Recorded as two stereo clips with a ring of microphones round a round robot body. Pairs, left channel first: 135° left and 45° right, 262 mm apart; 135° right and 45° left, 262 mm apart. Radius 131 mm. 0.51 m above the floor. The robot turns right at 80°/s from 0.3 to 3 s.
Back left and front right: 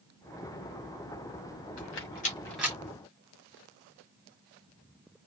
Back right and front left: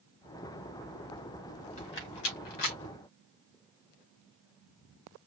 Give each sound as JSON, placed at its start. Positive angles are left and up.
{"t": 1.8, "sound": "a rattle", "azimuth_deg": 160, "distance_m": 2.0}